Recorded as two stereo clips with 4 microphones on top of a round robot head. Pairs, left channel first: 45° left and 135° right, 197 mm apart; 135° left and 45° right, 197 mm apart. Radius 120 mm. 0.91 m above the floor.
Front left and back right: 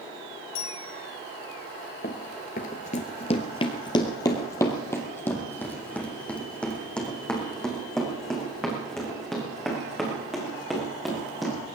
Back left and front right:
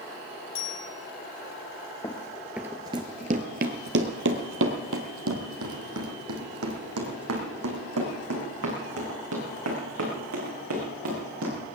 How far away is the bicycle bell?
About 5 m.